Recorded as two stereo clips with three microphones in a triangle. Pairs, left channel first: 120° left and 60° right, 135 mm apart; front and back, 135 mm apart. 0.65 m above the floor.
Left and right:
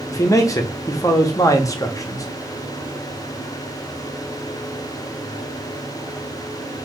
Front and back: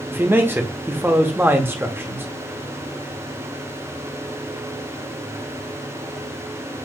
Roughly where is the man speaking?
Behind left.